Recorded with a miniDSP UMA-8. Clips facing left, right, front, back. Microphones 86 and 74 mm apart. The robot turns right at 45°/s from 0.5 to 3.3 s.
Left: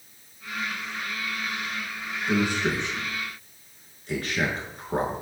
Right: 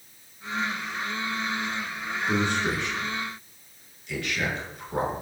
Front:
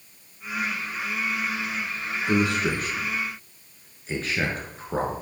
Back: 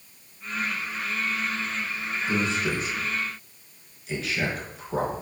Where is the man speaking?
Straight ahead, 5 m; by 5.1 s 45° left, 5 m.